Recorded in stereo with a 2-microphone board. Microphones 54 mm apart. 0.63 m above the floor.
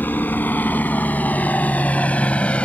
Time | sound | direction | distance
0.0 | a helicopter | 35° left (ahead or behind) | ?